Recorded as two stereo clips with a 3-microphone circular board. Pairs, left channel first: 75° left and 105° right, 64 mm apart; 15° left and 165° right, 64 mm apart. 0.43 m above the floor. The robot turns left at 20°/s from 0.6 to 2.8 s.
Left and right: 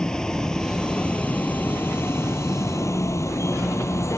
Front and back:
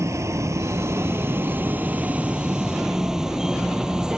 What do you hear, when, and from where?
0.0 s a vehicle: 150° left; by 4.2 s 115° left